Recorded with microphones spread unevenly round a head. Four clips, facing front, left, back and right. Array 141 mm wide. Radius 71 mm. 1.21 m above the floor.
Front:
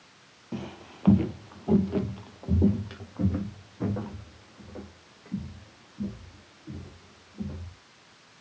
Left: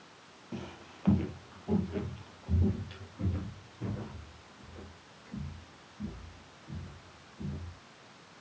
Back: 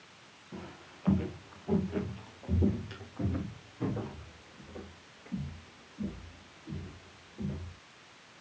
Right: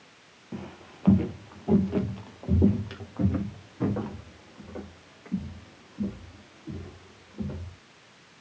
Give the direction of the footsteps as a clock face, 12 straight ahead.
12 o'clock.